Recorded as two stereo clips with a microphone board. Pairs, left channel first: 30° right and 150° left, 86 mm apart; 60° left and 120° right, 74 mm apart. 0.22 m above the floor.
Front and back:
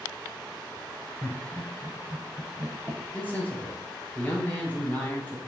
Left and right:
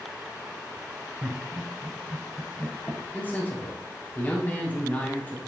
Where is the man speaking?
20° left, 1.4 m.